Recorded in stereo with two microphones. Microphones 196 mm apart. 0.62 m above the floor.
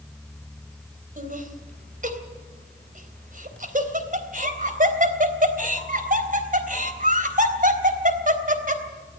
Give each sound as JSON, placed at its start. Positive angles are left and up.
{"t": 1.2, "sound": "laughter", "side_deg": -45, "distance_m": 3.5}